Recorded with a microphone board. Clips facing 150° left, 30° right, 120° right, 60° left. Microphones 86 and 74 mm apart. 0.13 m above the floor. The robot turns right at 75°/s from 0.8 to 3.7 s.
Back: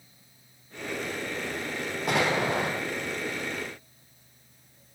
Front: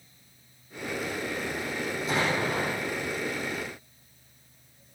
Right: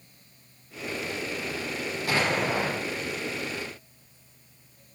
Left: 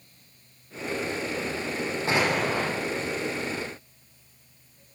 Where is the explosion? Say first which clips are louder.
Back 3 dB, left 1 dB; 125° left, 6.5 m; by 2.7 s 175° left, 6.5 m.